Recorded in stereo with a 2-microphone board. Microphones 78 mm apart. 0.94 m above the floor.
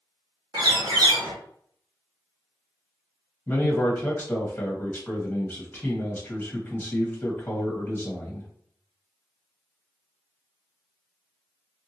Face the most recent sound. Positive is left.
turn(degrees=20)  # may be behind; listen again after turning